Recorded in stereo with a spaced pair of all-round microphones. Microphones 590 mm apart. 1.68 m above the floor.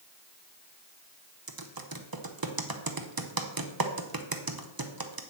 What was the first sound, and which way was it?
Typing on a keyboard, 40° right (ahead or behind).